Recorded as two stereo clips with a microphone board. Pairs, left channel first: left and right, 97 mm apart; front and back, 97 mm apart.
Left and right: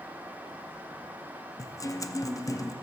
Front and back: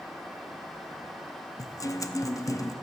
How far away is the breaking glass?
No breaking glass in this recording.